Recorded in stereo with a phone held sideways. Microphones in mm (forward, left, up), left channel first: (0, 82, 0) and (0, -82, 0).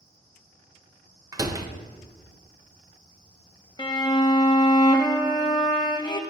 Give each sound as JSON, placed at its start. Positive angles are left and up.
{"t": 1.3, "sound": "a door slam", "side_deg": -20, "distance_m": 0.5}
{"t": 3.8, "sound": "a violin", "side_deg": 25, "distance_m": 0.6}